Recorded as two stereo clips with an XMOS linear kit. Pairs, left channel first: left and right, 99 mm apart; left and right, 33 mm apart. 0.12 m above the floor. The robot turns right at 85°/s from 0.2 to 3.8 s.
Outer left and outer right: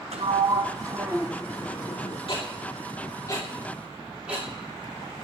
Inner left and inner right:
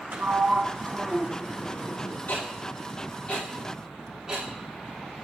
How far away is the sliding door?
About 1.5 m.